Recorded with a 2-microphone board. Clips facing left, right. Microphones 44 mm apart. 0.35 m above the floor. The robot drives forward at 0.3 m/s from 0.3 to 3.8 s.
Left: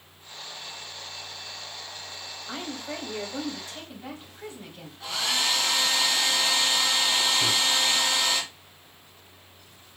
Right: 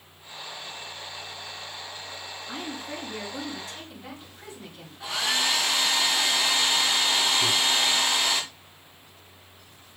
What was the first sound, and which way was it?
A woman speaking, 35° left (ahead or behind).